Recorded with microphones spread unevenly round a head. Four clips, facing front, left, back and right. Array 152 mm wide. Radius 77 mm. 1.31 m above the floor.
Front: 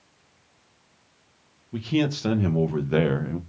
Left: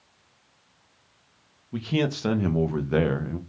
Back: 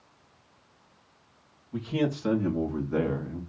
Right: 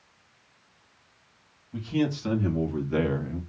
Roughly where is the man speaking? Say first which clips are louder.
Left 1 dB, front 4 dB; ahead left.